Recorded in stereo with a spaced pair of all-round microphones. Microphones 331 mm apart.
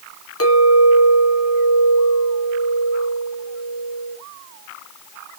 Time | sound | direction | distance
0.4 | a clink | 45° left (ahead or behind) | 1.5 m